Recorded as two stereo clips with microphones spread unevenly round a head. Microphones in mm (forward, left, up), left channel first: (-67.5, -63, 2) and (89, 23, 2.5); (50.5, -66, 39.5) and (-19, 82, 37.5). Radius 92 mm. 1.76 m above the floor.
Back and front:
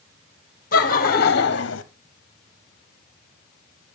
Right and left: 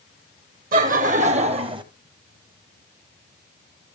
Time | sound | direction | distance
0.7 | laughter | 160° left | 1.7 m